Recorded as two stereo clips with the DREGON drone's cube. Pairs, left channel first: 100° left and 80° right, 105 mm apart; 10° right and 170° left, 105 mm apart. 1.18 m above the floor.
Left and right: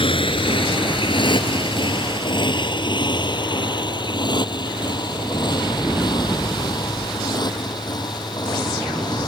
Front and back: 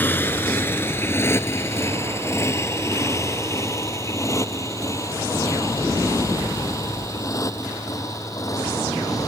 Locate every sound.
0.0 s a motorcycle: 60° left; by 9.3 s 50° left